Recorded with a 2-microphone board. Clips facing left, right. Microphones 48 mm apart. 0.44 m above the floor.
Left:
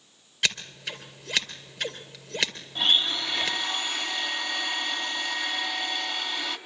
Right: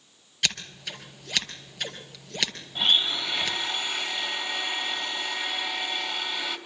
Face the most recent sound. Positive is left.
turn(degrees=-5)  # may be behind; listen again after turning